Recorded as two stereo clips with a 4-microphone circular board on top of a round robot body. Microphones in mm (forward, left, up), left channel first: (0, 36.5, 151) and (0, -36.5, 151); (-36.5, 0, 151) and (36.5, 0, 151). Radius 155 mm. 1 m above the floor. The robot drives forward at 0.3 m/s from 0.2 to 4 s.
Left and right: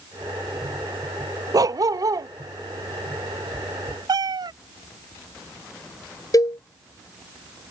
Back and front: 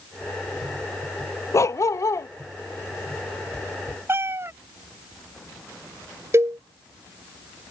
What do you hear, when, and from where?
1.5 s a dog barking: 130° right
4.1 s a cat meowing: 60° right
6.3 s a cowbell: 55° left